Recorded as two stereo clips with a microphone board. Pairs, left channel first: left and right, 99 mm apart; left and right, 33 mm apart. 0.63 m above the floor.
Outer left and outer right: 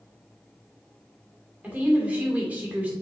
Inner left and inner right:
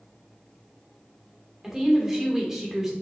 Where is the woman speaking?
15° right (ahead or behind), 2 m.